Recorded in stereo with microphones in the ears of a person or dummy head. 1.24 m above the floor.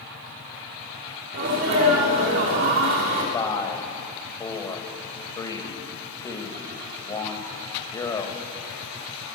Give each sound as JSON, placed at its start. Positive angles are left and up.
{"t": 1.3, "sound": "a sneeze", "side_deg": -60, "distance_m": 2.5}
{"t": 3.3, "sound": "a man speaking", "side_deg": 20, "distance_m": 1.2}